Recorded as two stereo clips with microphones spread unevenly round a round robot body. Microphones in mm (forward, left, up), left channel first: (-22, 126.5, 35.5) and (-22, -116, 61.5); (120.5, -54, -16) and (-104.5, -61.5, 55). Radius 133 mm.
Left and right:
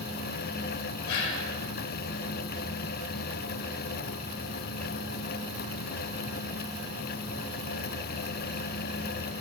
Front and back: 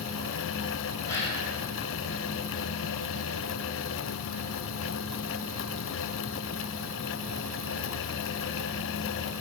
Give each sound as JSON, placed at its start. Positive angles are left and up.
{"t": 1.1, "sound": "a gasp", "azimuth_deg": 80, "distance_m": 2.5}